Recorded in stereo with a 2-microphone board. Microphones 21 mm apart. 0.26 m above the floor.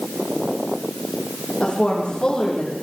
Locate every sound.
1.6 s a woman speaking: 40° left (ahead or behind), 9.5 m